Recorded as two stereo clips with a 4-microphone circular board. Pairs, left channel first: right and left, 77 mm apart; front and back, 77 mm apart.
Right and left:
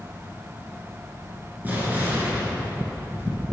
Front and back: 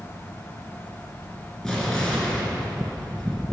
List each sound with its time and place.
1.6 s an explosion: 70° left, 1.7 m